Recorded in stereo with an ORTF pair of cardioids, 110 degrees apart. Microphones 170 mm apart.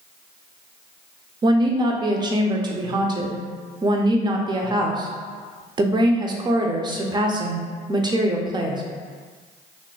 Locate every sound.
1.4 s a woman speaking: 25° right, 0.5 m